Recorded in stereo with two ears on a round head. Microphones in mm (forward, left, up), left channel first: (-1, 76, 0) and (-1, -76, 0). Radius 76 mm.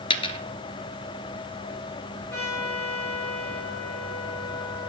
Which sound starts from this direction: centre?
A trumpet, at 2.3 s.